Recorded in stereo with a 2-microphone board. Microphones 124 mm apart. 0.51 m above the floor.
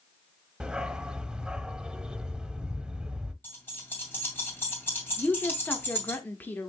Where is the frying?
No frying in this recording.